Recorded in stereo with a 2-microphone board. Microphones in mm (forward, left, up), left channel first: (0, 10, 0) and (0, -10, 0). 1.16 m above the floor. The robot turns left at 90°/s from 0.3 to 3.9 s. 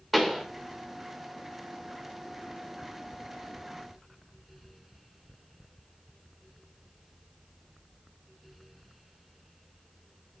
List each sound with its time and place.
0.1 s a pop: centre (ahead or behind), 3 m; by 0.5 s 10° right (ahead or behind), 3 m